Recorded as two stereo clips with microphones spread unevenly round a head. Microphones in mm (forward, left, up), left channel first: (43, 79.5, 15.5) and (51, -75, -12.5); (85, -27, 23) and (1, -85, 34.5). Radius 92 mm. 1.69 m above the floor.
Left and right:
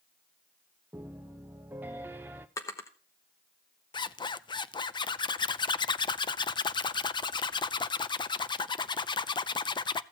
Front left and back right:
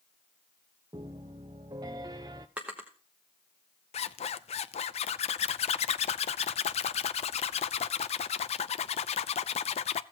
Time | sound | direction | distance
0.9 | a piano | 175° right | 0.6 m
2.6 | a drawer | 145° left | 1.0 m
3.9 | a zipper | 30° left | 0.6 m